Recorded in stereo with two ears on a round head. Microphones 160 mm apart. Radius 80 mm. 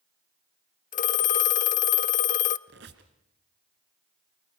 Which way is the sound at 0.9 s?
45° left (ahead or behind).